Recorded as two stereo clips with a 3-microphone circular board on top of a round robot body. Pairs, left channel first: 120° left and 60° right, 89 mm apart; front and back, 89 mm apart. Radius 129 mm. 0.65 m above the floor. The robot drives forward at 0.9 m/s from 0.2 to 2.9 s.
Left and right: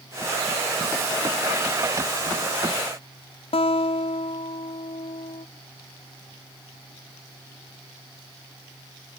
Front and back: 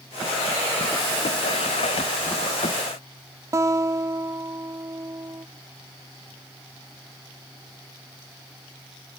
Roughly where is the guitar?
Behind left.